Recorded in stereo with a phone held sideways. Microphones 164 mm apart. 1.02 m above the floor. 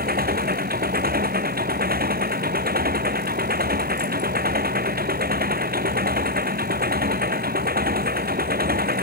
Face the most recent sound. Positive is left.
turn(degrees=-75)  # may be behind; listen again after turning